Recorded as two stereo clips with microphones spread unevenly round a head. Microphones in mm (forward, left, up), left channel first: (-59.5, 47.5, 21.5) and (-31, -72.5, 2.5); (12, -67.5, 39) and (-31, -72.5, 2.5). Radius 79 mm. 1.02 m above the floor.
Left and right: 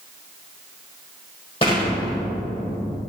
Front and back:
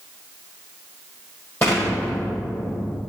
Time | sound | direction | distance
1.6 | an explosion | 45° left | 1.7 m